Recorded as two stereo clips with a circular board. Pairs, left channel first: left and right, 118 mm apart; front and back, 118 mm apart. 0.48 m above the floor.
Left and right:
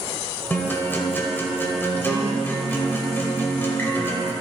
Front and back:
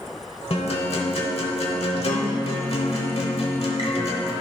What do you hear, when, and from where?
0.5 s a guitar: 20° left, 1.1 m